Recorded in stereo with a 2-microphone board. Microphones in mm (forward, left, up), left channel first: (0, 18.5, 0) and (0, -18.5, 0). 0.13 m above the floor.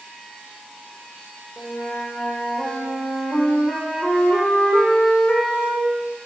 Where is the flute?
30° left (ahead or behind), 1.4 m.